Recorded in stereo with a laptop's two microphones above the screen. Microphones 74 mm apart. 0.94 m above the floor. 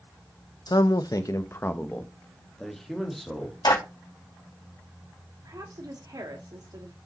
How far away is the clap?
About 5 m.